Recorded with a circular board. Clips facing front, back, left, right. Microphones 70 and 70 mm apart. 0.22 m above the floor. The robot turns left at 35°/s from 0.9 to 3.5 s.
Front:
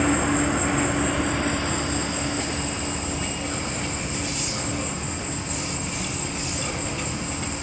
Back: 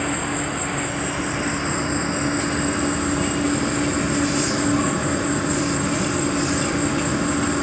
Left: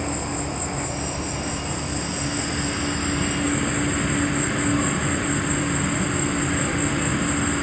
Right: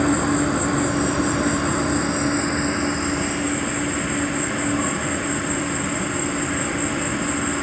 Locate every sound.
0.0 s an insect: 85° right, 0.8 m; by 7.6 s 175° right, 0.8 m